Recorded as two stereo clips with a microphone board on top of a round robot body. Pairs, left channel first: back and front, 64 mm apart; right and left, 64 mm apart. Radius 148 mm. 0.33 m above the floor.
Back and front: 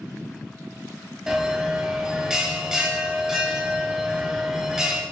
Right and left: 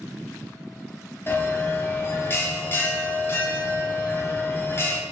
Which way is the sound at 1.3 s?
75° right.